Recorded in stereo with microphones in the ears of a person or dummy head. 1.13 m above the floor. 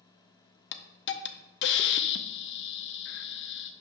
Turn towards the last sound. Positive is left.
turn(degrees=55)  # may be behind; listen again after turning